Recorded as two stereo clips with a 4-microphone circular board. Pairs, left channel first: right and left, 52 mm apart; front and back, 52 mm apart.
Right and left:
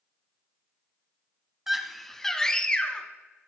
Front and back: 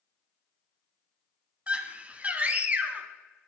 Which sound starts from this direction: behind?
A scream, at 1.7 s.